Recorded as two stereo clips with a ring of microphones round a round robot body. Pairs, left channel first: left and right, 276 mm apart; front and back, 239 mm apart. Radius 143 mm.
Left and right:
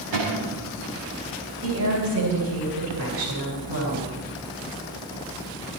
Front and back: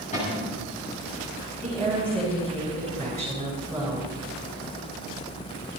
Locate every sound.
0.1 s a cupboard door: 65° right, 7.5 m
1.6 s a woman speaking: 85° right, 9 m